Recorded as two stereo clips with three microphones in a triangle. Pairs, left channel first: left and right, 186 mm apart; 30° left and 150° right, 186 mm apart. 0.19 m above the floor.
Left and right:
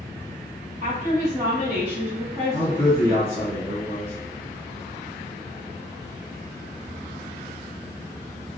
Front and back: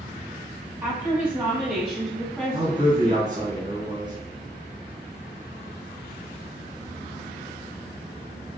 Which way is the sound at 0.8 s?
85° right.